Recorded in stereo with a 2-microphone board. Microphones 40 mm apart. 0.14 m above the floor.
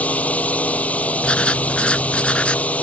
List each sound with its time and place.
0.0 s a drone: 40° left (ahead or behind)
1.2 s writing: 30° left (ahead or behind)